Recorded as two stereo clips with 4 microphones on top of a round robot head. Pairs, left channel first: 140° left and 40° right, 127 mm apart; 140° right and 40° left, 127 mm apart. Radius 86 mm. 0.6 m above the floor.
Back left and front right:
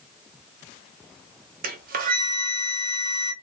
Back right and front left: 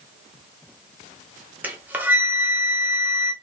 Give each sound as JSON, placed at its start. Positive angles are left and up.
{"t": 1.6, "sound": "a flute", "azimuth_deg": -35, "distance_m": 0.5}